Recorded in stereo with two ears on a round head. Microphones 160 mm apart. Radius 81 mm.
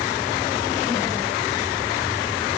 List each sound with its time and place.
Only background noise.